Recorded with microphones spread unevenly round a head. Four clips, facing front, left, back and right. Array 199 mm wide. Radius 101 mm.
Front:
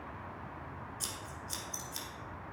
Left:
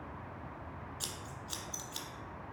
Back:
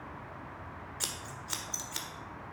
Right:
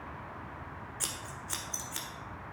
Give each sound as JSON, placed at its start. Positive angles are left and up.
{"t": 1.0, "sound": "scissors", "azimuth_deg": -150, "distance_m": 1.6}